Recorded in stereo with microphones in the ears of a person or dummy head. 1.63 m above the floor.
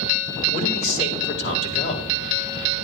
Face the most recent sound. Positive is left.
turn(degrees=40)  # may be behind; listen again after turning